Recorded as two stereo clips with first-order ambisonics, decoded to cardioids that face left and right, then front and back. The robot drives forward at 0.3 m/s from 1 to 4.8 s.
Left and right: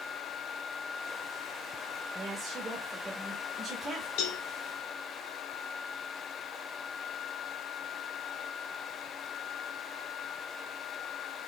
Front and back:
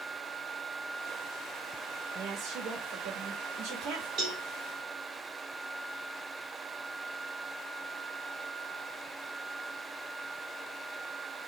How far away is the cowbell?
About 1.7 m.